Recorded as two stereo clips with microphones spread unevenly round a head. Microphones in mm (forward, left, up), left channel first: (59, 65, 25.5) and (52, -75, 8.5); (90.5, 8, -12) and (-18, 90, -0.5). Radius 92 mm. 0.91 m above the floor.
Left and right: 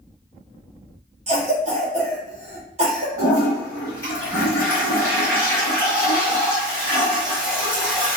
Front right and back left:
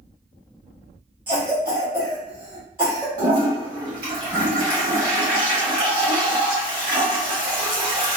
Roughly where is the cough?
Behind right.